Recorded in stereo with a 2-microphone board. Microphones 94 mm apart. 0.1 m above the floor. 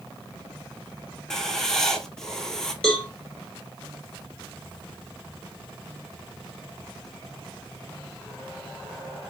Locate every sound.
1.3 s writing: 5° left (ahead or behind), 0.6 m
2.8 s a cowbell: 10° left (ahead or behind), 1.2 m